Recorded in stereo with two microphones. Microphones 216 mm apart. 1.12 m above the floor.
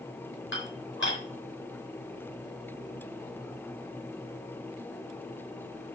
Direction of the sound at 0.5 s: 60° left (ahead or behind).